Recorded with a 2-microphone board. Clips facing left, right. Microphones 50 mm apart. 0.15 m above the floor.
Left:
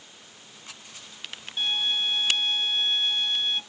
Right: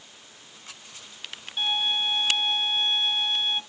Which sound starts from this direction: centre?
A violin, at 1.6 s.